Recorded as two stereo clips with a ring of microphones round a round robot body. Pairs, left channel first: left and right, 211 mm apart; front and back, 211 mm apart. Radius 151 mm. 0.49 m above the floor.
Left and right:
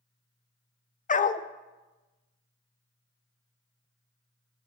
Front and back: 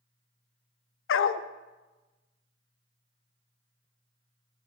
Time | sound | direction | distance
1.1 | a dog barking | 30° left | 0.5 m